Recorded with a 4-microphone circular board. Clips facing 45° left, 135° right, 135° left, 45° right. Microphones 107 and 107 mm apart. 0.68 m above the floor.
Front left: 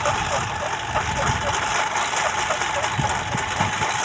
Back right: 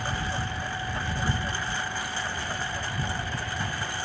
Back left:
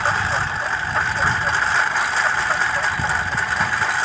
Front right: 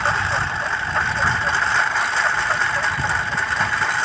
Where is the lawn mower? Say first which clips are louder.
Front left 9 dB, even; 45° left.